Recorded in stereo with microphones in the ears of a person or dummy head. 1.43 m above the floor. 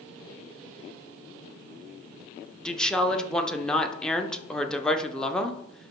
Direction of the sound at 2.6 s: Centre (ahead or behind).